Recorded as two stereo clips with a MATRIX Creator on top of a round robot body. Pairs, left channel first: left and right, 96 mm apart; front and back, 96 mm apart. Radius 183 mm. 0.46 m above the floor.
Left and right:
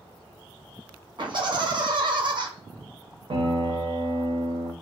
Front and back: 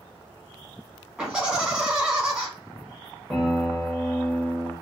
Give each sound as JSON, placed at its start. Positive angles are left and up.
{"t": 1.2, "sound": "laughter", "azimuth_deg": -100, "distance_m": 1.6}
{"t": 3.3, "sound": "a piano", "azimuth_deg": -90, "distance_m": 0.9}